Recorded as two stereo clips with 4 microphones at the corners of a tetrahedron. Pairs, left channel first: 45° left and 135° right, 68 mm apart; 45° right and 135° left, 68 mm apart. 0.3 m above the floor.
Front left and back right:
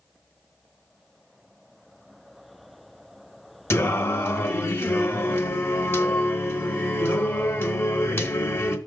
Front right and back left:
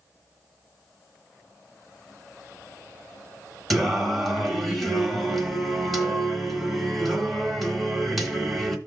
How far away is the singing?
About 1.1 m.